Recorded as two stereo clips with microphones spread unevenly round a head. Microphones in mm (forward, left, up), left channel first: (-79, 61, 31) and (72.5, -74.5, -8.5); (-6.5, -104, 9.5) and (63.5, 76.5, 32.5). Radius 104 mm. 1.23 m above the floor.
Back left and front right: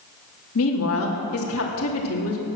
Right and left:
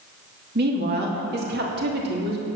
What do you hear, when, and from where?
0.6 s a woman speaking: 115° left, 3 m